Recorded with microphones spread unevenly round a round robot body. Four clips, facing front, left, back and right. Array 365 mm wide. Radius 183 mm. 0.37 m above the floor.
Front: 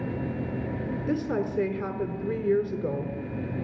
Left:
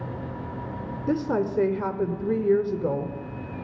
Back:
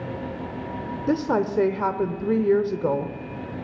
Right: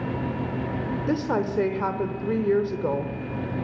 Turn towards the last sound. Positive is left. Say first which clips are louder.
# left 1 dB, back 6 dB
turn(degrees=135)